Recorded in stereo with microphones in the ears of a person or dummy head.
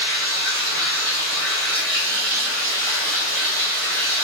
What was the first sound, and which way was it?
Running water, 60° right (ahead or behind).